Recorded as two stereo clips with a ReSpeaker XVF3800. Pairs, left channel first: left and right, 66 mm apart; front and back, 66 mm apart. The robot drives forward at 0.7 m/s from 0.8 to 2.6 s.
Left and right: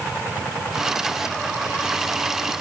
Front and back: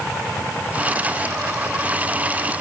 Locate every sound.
Only background noise.